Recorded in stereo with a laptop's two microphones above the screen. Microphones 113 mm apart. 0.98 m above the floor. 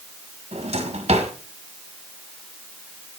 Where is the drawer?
70° right (ahead or behind), 1.6 m.